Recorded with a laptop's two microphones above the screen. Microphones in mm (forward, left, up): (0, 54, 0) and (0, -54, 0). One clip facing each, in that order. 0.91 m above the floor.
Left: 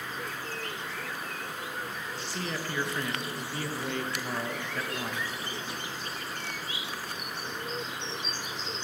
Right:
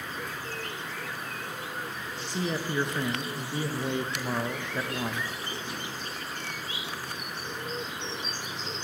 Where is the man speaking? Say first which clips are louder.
Right 6 dB; 20° right (ahead or behind), 0.5 m.